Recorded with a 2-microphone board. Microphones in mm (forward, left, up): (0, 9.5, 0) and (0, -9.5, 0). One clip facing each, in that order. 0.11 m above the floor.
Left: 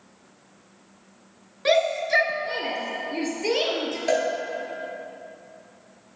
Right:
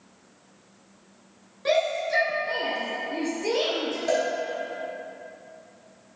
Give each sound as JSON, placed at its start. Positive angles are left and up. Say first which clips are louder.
{"t": 1.6, "sound": "a shout", "louder": "left 3 dB", "side_deg": 30, "distance_m": 1.3}
{"t": 4.1, "sound": "a cowbell", "louder": "left 2 dB", "side_deg": 20, "distance_m": 2.0}